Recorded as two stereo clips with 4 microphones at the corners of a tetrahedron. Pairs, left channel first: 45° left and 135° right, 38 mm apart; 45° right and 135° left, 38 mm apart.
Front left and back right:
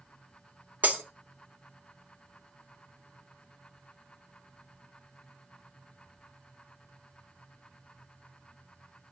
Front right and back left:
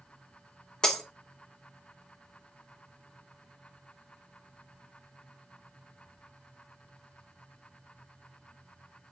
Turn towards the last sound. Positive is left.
turn(degrees=-115)